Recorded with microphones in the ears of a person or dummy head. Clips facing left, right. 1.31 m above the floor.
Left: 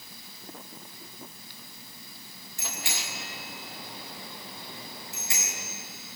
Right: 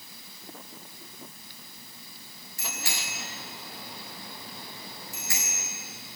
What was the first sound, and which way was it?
A bicycle bell, 25° left (ahead or behind).